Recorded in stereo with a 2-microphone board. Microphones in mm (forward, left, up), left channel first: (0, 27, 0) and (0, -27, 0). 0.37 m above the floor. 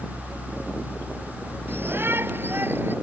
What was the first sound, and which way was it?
A shout, 45° right (ahead or behind).